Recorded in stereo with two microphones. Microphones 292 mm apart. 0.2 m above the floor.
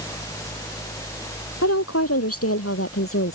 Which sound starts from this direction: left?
A woman speaking, at 1.6 s.